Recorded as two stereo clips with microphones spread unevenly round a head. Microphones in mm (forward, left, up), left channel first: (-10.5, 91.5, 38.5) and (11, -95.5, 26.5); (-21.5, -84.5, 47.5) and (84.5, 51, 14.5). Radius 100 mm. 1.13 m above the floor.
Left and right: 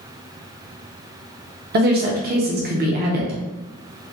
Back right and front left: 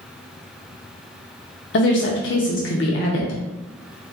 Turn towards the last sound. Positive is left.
turn(degrees=-115)